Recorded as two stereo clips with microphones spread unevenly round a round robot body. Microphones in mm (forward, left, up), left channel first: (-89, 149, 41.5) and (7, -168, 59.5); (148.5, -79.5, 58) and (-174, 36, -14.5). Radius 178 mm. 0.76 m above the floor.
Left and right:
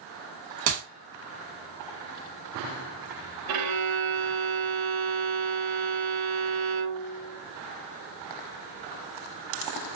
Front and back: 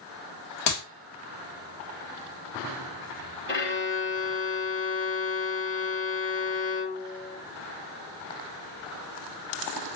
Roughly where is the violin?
Right.